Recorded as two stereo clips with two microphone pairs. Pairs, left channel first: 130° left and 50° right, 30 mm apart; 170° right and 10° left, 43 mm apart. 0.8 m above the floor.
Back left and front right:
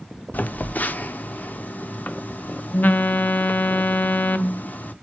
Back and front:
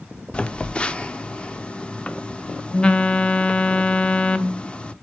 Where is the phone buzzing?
130° left, 0.6 m.